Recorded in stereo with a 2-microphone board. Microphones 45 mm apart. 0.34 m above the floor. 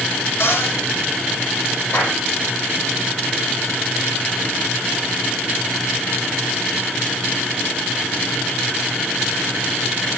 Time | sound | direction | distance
0.4 | a cupboard door | 55° left (ahead or behind) | 3.5 m
1.9 | a clap | 40° left (ahead or behind) | 7.5 m